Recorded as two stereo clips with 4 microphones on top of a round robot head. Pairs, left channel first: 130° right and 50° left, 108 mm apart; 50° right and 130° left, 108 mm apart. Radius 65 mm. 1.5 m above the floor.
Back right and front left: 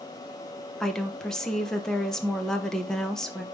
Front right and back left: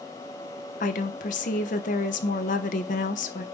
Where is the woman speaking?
45° right, 1.2 m.